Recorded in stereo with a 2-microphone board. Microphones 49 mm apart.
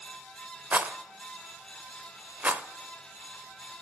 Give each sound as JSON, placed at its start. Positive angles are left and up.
{"t": 0.7, "sound": "a rattle", "side_deg": -35, "distance_m": 0.6}